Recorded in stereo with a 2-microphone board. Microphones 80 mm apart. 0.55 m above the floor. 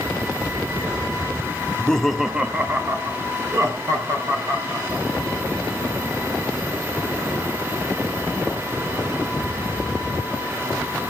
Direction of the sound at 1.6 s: 20° left (ahead or behind).